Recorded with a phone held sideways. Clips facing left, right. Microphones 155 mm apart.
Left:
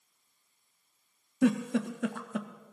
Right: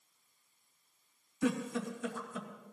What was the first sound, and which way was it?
A giggle, 70° left (ahead or behind).